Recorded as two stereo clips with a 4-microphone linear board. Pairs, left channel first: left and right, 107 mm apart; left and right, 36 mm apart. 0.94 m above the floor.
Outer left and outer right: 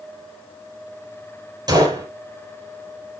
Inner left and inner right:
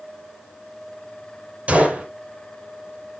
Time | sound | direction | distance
1.7 | a gunshot | 40° right (ahead or behind) | 5 m